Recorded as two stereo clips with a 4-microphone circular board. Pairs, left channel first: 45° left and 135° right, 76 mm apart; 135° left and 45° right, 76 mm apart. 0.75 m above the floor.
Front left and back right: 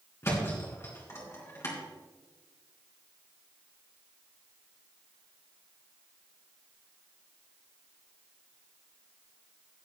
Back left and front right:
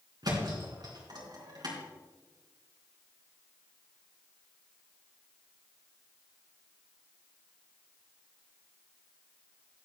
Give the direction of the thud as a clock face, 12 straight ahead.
12 o'clock.